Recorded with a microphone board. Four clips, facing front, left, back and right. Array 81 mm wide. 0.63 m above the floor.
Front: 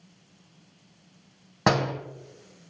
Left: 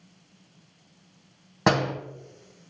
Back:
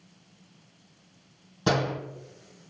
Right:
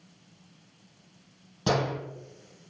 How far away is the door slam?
About 3 m.